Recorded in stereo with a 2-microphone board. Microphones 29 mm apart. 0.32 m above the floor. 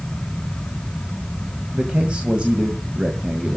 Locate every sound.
1.7 s a man speaking: 40° right (ahead or behind), 1.9 m